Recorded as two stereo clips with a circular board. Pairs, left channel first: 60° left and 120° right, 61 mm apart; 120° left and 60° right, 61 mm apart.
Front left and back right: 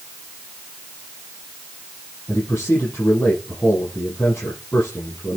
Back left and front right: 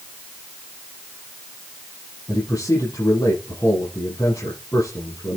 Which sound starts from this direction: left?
A man speaking, at 2.3 s.